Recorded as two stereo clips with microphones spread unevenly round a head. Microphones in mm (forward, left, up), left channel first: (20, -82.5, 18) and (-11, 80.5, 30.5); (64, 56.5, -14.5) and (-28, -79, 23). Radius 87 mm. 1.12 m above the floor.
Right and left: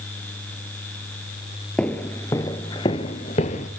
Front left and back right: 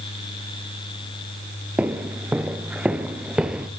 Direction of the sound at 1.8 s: 165° right.